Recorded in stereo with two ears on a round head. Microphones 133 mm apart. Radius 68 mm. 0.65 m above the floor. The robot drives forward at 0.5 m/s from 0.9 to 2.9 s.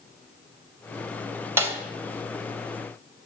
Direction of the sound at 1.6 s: 15° right (ahead or behind).